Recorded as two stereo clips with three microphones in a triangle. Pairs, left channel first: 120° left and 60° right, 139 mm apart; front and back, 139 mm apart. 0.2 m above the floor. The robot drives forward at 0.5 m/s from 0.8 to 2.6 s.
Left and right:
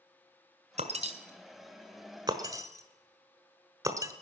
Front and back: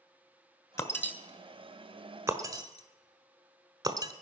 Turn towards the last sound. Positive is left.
turn(degrees=-120)